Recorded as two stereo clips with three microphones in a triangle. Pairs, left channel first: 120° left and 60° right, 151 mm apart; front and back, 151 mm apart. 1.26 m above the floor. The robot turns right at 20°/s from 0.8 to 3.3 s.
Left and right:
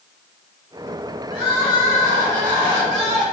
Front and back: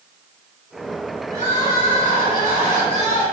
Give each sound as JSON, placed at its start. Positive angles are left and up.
{"t": 1.3, "sound": "crying", "azimuth_deg": 175, "distance_m": 1.9}